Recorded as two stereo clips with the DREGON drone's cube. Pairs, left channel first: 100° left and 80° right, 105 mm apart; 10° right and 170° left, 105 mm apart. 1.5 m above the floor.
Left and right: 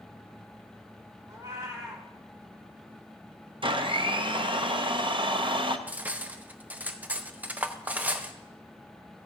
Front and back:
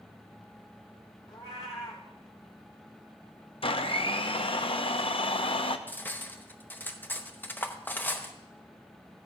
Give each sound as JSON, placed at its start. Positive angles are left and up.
{"t": 1.3, "sound": "a cat meowing", "azimuth_deg": -25, "distance_m": 2.0}
{"t": 3.6, "sound": "a blender", "azimuth_deg": -45, "distance_m": 0.6}
{"t": 5.9, "sound": "cutlery clinking", "azimuth_deg": -30, "distance_m": 0.6}